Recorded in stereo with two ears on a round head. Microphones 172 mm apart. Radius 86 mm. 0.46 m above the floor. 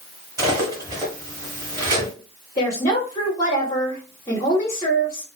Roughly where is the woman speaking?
Centre.